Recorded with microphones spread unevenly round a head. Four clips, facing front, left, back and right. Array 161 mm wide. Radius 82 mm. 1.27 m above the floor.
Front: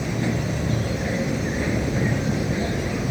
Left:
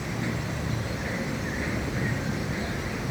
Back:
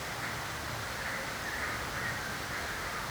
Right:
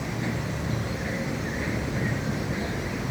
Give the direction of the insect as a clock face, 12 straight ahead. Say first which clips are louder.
Right 1 dB, front 14 dB; 12 o'clock.